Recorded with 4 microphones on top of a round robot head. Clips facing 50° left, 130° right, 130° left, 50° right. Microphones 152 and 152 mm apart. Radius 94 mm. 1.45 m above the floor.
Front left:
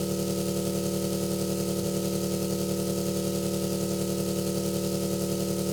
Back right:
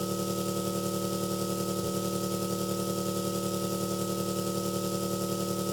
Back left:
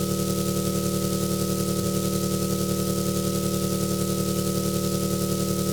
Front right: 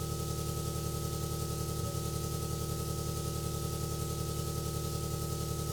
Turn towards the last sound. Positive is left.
turn(degrees=135)